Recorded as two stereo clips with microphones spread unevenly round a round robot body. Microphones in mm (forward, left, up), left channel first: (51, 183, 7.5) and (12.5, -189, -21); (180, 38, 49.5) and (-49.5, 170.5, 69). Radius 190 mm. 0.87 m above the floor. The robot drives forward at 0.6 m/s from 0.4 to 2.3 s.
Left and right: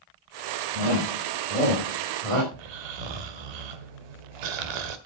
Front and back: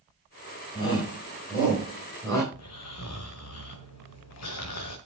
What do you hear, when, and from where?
0.8 s a shout: 105° right, 5 m; by 2.4 s 115° right, 5.5 m
2.5 s snoring: 80° right, 1.4 m